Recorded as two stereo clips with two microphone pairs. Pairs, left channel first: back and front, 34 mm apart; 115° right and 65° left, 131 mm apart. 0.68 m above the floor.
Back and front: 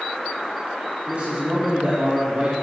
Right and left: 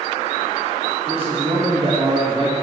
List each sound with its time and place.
1.1 s a man speaking: 30° left, 1.8 m